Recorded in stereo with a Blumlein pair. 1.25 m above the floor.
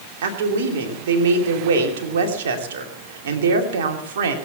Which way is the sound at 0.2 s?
55° right.